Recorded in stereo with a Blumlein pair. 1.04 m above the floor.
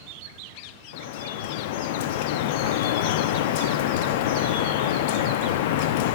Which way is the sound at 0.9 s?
50° left.